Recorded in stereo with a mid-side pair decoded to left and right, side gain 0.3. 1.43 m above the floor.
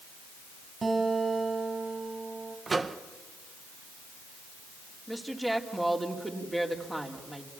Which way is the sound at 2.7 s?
45° right.